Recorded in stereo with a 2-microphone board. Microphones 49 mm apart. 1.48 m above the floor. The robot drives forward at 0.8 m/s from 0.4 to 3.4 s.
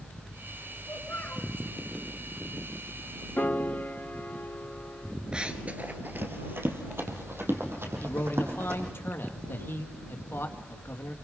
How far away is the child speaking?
About 4 m.